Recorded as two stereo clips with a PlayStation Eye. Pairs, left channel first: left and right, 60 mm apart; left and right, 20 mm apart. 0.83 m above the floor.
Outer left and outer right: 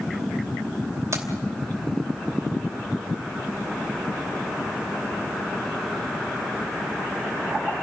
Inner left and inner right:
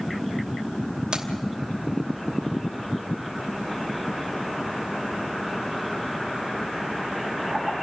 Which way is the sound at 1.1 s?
55° right (ahead or behind).